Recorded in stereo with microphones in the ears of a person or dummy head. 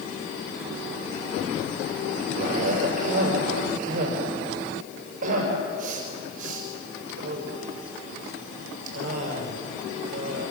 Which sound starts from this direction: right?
A cough, at 2.4 s.